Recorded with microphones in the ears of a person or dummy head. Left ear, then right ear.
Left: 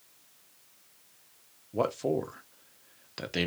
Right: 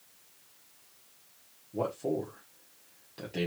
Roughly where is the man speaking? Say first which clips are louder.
Left 3 dB; left.